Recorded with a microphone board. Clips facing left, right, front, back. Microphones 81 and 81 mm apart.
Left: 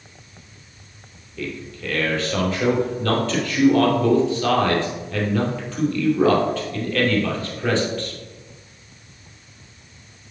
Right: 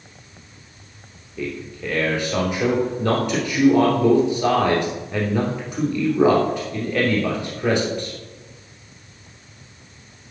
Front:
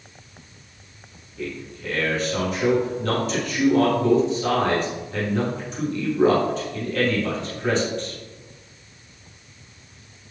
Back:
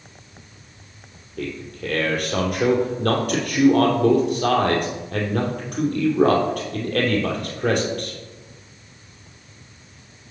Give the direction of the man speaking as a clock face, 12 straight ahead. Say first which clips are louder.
Right 2 dB, back 2 dB; 5 o'clock.